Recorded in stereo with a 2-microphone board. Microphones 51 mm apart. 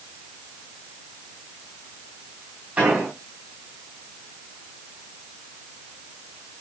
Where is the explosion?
30° right (ahead or behind), 6.5 m.